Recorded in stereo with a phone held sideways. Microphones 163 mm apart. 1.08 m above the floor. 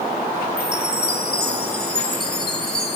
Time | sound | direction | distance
0.6 | a chime | 85° left | 3 m